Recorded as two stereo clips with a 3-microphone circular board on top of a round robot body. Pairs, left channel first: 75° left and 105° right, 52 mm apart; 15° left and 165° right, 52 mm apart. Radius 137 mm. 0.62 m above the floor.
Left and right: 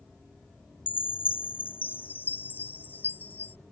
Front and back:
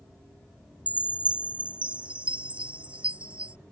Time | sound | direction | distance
0.9 | a chime | 130° left | ?